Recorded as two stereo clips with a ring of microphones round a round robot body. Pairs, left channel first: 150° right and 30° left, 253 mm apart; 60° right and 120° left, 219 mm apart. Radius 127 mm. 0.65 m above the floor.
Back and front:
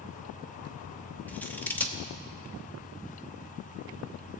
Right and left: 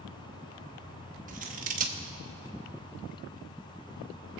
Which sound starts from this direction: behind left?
Scissors, at 1.3 s.